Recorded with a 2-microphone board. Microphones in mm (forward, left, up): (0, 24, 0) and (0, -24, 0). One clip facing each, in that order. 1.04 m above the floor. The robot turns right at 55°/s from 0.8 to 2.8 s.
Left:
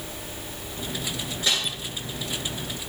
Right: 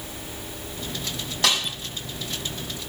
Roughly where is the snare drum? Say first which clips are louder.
Right 3 dB; right.